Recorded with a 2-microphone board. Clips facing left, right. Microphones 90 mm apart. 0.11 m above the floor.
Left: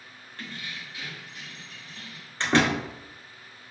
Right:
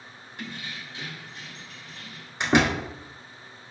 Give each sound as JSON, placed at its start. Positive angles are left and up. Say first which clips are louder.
{"t": 0.4, "sound": "keys jangling", "louder": "right 2 dB", "side_deg": -20, "distance_m": 0.8}
{"t": 2.4, "sound": "a door slam", "louder": "right 1 dB", "side_deg": -15, "distance_m": 1.0}